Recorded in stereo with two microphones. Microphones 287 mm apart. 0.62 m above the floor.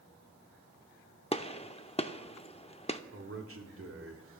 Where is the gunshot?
20° left (ahead or behind), 0.6 m.